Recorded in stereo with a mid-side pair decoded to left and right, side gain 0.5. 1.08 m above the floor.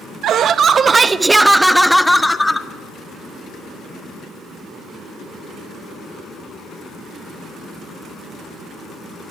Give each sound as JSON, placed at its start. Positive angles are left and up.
{"t": 0.2, "sound": "laughter", "azimuth_deg": -65, "distance_m": 0.9}